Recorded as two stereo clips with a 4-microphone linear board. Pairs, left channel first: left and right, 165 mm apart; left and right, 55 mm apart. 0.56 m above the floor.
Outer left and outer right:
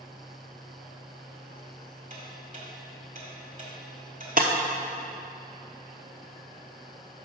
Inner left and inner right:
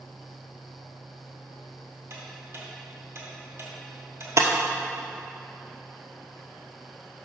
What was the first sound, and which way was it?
Ticking, 55° right (ahead or behind).